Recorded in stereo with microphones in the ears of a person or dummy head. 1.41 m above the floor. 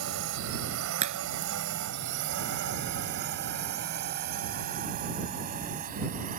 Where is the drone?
80° right; by 6.4 s 35° right (ahead or behind).